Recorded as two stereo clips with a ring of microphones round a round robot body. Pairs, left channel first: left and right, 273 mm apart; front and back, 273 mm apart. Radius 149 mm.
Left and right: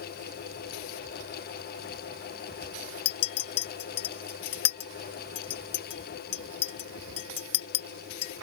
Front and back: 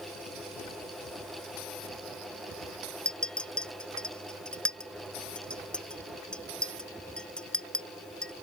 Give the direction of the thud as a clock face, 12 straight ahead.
I don't hear a thud.